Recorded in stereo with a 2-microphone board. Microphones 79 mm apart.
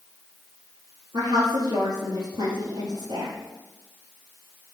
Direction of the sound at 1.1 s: 65° right (ahead or behind).